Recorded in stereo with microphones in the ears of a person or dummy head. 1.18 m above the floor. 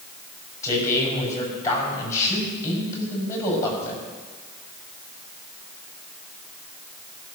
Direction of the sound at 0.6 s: 20° left (ahead or behind).